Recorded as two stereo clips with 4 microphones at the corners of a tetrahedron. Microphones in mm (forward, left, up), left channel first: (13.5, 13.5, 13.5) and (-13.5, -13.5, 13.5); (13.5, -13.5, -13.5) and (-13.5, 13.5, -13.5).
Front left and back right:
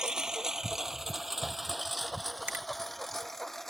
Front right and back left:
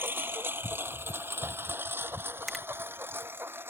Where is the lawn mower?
155° left; by 3.7 s 125° left.